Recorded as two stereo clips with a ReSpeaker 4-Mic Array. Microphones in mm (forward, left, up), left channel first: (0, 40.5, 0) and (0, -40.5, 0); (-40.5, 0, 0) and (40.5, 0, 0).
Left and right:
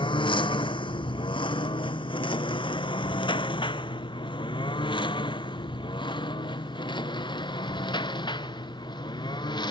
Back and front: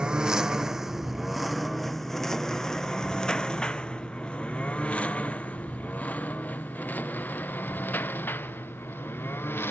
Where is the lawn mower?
80° left; by 9.7 s 115° left.